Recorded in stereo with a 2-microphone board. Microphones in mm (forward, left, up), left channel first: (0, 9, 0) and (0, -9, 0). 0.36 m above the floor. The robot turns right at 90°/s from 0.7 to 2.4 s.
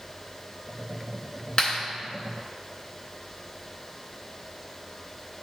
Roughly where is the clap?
Left.